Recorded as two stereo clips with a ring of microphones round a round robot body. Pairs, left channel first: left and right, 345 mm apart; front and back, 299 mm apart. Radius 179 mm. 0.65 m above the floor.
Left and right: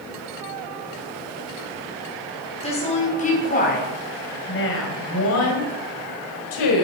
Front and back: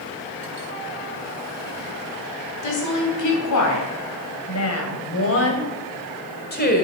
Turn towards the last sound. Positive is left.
turn(degrees=60)